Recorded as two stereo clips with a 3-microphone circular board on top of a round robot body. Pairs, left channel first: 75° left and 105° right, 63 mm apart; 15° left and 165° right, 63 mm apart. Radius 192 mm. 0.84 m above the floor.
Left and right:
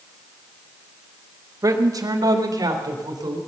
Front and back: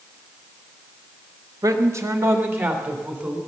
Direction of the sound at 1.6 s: 135° right.